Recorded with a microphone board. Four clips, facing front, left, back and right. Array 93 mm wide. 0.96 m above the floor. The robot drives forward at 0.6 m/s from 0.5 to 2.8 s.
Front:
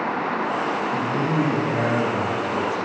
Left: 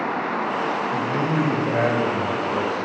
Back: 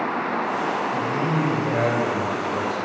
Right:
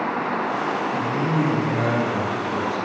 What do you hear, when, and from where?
0.9 s a man speaking: 120° left, 4 m; by 2.8 s 130° left, 4.5 m